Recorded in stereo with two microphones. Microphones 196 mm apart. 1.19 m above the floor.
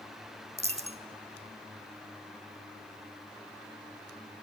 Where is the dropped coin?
30° right (ahead or behind), 1.0 m.